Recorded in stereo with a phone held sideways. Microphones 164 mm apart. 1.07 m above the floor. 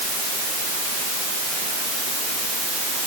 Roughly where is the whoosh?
I don't hear a whoosh.